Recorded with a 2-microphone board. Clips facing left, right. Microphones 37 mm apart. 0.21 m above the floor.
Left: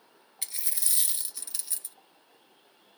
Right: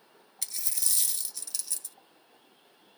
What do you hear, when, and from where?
0.4 s a dropped coin: 20° left (ahead or behind), 0.6 m